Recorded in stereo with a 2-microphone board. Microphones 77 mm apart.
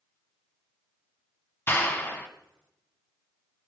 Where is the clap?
30° left (ahead or behind), 1.8 m.